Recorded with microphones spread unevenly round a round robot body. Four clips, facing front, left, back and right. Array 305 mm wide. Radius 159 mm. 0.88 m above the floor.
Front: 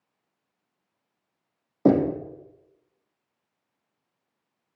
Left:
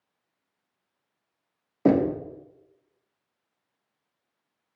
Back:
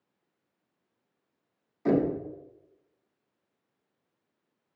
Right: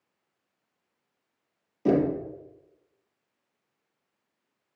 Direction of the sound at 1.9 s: 30° left.